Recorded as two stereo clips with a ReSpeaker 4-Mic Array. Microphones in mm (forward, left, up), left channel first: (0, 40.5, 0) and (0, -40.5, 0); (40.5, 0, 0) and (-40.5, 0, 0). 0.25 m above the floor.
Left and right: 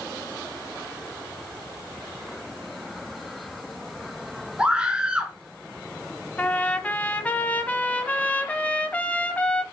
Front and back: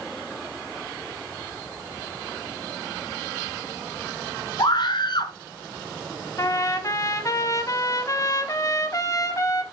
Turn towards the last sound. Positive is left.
turn(degrees=25)